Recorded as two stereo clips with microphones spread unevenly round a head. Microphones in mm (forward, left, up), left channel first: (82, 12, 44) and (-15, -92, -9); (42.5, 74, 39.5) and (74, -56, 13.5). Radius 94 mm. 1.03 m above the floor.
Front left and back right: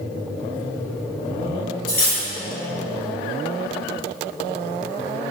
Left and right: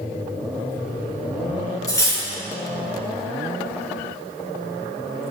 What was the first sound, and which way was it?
Cutlery clinking, 40° left.